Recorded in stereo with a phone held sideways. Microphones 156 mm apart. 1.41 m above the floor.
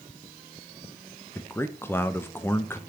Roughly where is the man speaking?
Centre.